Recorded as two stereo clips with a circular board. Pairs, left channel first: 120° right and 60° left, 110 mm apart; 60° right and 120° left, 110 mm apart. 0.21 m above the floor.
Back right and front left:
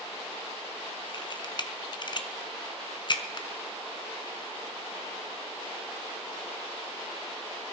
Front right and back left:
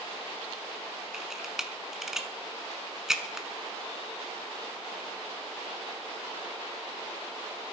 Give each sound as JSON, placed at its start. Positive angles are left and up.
{"t": 1.1, "sound": "a camera shutter", "azimuth_deg": -155, "distance_m": 1.1}